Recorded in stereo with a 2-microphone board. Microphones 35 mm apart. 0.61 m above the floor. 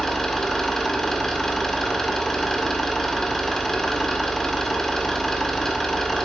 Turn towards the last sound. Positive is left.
turn(degrees=10)  # may be behind; listen again after turning